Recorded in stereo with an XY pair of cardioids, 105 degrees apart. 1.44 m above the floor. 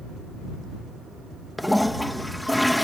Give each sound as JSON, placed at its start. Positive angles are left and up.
{"t": 1.6, "sound": "a toilet flushing", "azimuth_deg": 5}